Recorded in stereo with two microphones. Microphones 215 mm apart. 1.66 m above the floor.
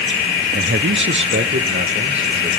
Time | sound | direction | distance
0.5 | a man speaking | 50° right (ahead or behind) | 0.6 m